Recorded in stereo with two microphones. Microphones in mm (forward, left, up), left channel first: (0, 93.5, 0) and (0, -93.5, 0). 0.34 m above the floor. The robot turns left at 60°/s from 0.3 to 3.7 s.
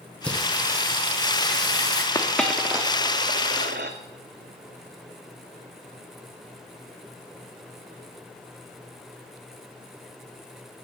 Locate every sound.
0.2 s singing: 5° left, 1.7 m; by 2.0 s 100° right, 1.7 m
2.1 s a dropped coin: 20° left (ahead or behind), 1.0 m; by 4.0 s 65° right (ahead or behind), 1.0 m